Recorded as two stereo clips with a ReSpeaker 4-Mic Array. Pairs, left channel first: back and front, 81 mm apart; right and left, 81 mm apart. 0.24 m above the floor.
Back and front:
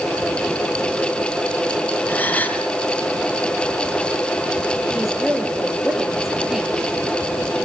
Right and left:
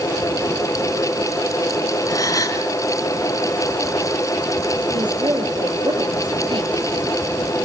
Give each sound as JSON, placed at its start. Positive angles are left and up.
{"t": 2.1, "sound": "a gasp", "azimuth_deg": -115, "distance_m": 2.0}
{"t": 4.9, "sound": "a woman speaking", "azimuth_deg": 85, "distance_m": 5.0}